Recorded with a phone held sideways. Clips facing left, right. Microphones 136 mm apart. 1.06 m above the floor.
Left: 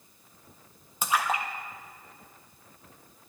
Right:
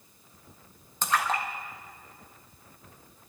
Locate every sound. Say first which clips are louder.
1.0 s a splash: even; 10° left (ahead or behind), 1.3 m